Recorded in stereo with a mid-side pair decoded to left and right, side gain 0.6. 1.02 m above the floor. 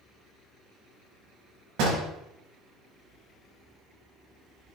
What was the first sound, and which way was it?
A door slam, 70° right.